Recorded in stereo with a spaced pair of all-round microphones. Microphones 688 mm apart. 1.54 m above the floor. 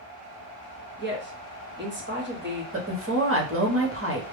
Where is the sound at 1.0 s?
15° right (ahead or behind), 0.8 m.